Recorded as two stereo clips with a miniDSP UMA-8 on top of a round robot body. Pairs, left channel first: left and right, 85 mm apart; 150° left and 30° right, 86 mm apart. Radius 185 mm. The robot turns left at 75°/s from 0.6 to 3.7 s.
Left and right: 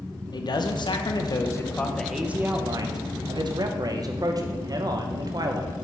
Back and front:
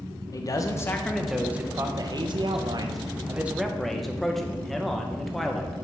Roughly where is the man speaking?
Left.